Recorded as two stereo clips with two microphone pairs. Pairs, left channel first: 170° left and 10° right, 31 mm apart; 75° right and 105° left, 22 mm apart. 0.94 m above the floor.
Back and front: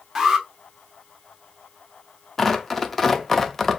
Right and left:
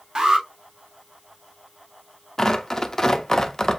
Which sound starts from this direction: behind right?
Tearing paper, at 2.4 s.